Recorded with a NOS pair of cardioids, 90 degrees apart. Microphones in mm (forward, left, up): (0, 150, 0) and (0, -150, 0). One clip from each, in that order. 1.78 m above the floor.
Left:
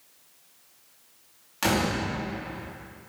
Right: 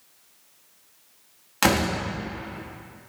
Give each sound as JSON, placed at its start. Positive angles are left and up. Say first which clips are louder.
{"t": 1.6, "sound": "a door slam", "louder": "right 4 dB", "azimuth_deg": -50, "distance_m": 2.5}